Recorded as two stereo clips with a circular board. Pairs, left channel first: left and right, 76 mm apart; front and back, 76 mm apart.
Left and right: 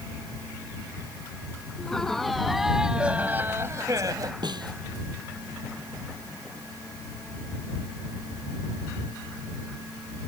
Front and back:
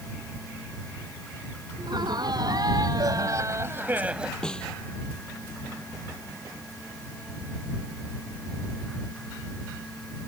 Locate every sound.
1.8 s laughter: 170° left; by 4.3 s 100° right
4.4 s a snare drum: 80° right